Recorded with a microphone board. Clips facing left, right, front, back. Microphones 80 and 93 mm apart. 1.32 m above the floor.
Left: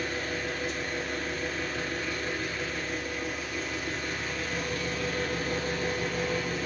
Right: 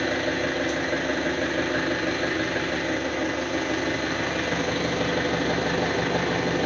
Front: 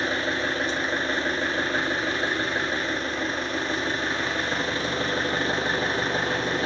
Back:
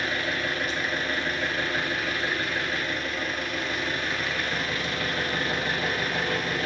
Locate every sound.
0.0 s an engine running: 60° right, 1.9 m